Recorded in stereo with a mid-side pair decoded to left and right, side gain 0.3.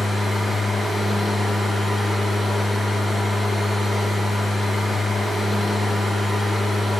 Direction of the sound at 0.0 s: 65° left.